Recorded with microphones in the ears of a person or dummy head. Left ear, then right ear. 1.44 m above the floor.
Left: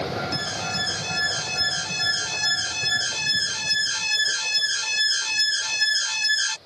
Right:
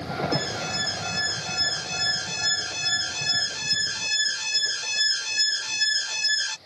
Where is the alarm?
20° left (ahead or behind).